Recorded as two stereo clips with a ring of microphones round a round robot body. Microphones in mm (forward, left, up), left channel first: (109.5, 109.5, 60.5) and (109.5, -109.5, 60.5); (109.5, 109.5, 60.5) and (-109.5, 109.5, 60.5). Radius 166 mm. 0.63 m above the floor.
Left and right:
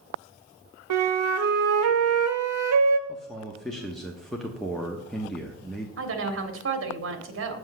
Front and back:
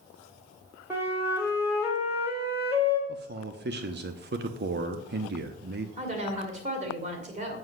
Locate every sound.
0.9 s a flute: 95° right, 1.0 m
3.1 s a man speaking: straight behind, 0.9 m
6.0 s a woman speaking: 120° right, 1.9 m